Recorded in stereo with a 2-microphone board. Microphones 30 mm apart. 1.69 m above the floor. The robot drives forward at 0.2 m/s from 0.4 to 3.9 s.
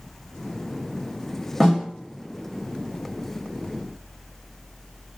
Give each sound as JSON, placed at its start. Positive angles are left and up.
{"t": 1.6, "sound": "a snare drum", "side_deg": 5, "distance_m": 1.2}